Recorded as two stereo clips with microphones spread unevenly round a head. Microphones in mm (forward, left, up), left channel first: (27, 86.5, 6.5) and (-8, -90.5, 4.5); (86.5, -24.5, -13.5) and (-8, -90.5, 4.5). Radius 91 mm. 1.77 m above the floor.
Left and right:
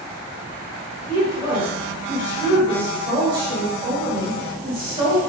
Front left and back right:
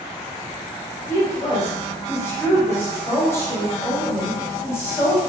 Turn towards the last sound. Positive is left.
turn(degrees=-35)